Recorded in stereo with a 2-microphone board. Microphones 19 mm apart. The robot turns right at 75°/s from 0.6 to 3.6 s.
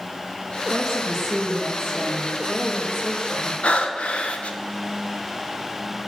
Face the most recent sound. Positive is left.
turn(degrees=80)